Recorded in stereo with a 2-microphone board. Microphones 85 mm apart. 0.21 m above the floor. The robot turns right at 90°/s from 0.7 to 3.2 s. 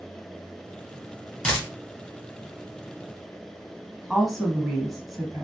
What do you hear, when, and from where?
1.4 s a dropped coin: 15° left (ahead or behind), 2 m; by 1.7 s 35° left (ahead or behind), 2 m
4.1 s a woman speaking: centre (ahead or behind), 1.4 m